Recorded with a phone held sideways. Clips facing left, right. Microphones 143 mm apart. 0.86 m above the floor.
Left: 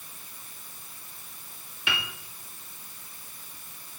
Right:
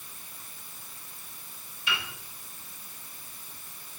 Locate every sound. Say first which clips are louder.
1.9 s a piano: left 1 dB; 65° left (ahead or behind), 1.8 m